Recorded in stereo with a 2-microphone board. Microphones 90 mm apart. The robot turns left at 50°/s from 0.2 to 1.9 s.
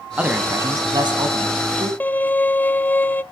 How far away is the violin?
About 0.6 m.